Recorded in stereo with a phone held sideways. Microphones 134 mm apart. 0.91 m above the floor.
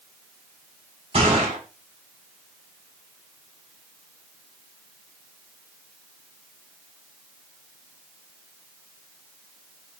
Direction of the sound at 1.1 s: 45° right (ahead or behind).